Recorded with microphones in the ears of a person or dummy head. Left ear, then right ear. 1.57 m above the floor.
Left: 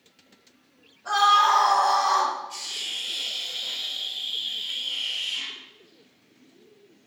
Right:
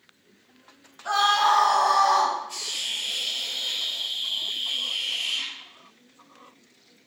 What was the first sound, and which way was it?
A scream, 10° right (ahead or behind).